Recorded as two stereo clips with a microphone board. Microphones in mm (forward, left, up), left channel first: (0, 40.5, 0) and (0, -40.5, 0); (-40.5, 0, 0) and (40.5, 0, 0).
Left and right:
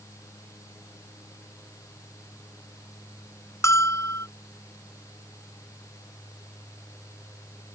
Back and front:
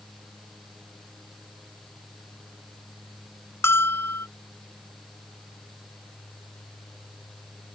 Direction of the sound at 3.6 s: 130° left.